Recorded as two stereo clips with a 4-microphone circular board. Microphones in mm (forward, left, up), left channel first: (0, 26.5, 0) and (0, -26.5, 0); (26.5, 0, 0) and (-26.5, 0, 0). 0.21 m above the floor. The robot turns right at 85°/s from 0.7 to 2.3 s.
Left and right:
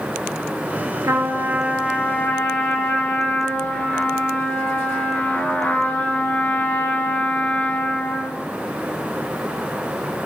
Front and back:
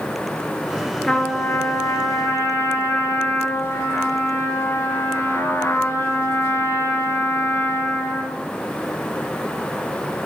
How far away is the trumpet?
About 1.0 m.